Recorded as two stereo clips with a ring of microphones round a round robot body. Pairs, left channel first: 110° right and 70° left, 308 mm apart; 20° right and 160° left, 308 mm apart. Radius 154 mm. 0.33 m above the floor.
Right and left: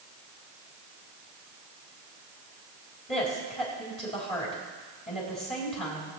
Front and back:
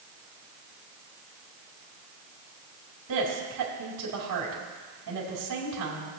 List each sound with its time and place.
3.1 s a woman speaking: straight behind, 3 m